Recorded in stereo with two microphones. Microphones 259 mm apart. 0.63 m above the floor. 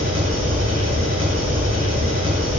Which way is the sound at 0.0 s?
80° right.